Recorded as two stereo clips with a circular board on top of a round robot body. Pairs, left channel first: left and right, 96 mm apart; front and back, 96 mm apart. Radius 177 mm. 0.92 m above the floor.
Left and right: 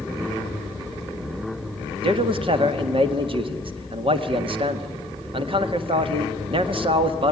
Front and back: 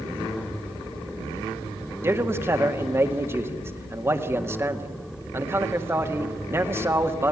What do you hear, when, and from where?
2.0 s a man speaking: 115° right, 1.9 m